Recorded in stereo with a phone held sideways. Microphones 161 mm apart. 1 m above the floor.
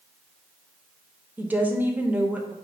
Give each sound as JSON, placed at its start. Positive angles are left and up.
{"t": 1.4, "sound": "a woman speaking", "side_deg": -10, "distance_m": 0.7}